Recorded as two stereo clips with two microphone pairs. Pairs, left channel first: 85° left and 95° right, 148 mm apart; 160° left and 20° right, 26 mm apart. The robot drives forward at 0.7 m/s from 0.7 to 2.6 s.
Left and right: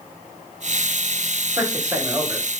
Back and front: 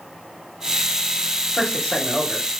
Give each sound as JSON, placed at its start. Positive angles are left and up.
{"t": 1.6, "sound": "a man speaking", "azimuth_deg": -155, "distance_m": 1.7}